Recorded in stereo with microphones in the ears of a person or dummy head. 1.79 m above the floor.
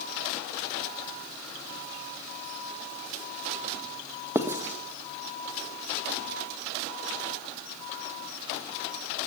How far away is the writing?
About 1.5 m.